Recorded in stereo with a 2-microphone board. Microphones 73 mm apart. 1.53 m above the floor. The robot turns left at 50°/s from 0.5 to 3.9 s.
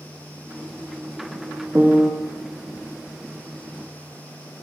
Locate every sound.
1.8 s a piano: 25° right (ahead or behind), 1.0 m; by 2.1 s 5° right (ahead or behind), 1.0 m